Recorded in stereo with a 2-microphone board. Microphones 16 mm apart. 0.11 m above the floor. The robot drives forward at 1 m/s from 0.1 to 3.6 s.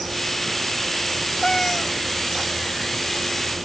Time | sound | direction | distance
1.4 | a cat meowing | 35° left (ahead or behind) | ?